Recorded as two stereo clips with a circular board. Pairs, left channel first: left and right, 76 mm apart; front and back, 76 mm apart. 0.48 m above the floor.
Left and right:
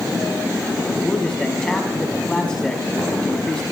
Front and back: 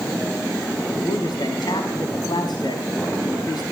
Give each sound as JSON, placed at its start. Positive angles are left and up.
{"t": 1.0, "sound": "a man speaking", "azimuth_deg": 10, "distance_m": 4.0}